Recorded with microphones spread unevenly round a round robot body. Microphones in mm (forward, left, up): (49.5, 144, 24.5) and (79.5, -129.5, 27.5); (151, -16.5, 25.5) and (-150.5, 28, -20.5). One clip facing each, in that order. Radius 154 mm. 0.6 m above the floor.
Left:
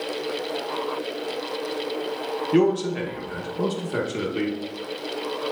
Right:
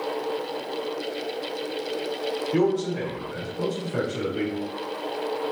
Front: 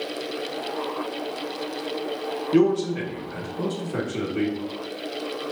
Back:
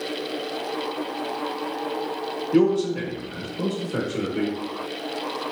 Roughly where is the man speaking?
Ahead left.